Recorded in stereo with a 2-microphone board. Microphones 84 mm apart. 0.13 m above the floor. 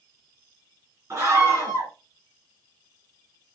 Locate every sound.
1.1 s a scream: 35° right (ahead or behind), 1.8 m